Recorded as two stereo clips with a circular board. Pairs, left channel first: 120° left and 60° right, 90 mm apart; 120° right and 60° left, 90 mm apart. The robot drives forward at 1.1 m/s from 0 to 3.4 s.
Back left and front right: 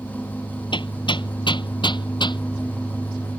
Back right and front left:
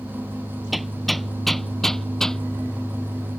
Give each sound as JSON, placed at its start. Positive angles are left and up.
{"t": 0.7, "sound": "hammering", "azimuth_deg": 150}